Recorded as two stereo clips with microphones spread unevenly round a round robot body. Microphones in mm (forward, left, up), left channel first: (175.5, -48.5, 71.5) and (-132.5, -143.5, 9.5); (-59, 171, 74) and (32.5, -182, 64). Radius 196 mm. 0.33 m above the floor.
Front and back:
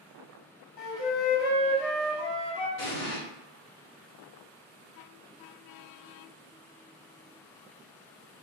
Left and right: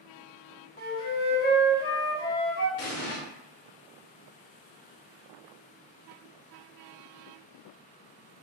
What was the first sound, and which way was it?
A flute, 40° left.